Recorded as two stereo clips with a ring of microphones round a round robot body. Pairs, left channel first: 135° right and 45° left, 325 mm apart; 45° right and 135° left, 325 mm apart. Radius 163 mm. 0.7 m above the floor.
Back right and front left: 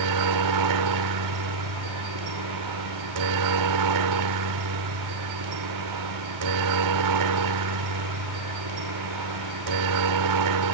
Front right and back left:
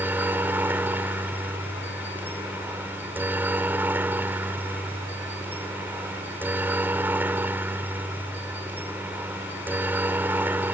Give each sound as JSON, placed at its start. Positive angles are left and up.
{"t": 0.0, "sound": "a helicopter", "azimuth_deg": 50}